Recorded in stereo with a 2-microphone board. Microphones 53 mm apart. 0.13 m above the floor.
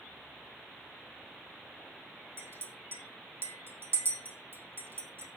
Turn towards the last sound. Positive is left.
turn(degrees=-45)  # may be behind; listen again after turning